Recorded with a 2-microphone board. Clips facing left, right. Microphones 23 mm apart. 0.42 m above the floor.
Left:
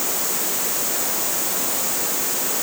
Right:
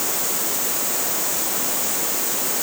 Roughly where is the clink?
I don't hear a clink.